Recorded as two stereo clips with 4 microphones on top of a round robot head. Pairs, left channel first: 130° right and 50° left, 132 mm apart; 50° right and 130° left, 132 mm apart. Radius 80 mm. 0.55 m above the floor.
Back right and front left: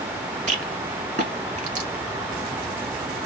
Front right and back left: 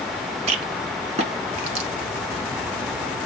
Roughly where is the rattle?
Left.